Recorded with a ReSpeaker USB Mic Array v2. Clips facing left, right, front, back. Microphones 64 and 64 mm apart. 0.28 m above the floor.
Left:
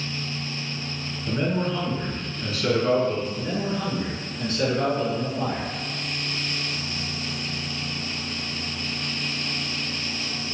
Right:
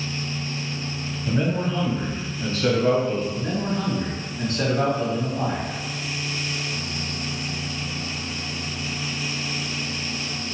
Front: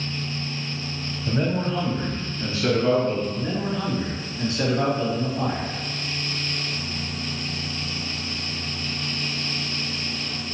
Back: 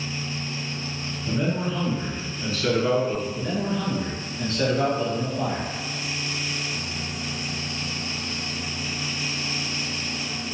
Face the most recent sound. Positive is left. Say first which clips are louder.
# right 1 dB, even
turn(degrees=-70)